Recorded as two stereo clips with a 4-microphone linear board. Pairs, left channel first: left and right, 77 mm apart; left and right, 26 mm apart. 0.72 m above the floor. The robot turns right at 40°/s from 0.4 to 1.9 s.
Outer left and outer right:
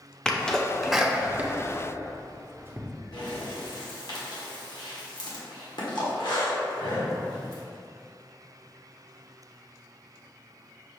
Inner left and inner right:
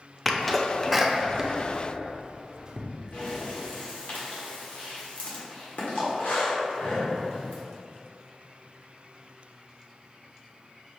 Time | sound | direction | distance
0.2 | a sneeze | 10° left (ahead or behind) | 0.6 m
3.1 | breathing | 65° left (ahead or behind) | 1.2 m